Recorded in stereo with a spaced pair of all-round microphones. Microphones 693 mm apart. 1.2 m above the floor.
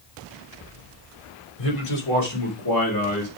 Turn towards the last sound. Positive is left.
turn(degrees=20)  # may be behind; listen again after turning